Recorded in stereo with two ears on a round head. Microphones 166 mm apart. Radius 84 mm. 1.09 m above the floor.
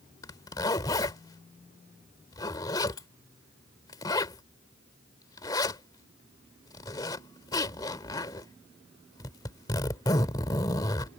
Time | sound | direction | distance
0.2 | a zipper | 20° left (ahead or behind) | ?